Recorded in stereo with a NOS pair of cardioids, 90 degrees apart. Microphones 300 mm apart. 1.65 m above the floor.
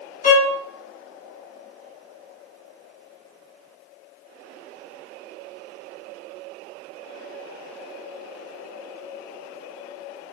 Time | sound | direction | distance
0.2 | a violin | 25° left | 1.0 m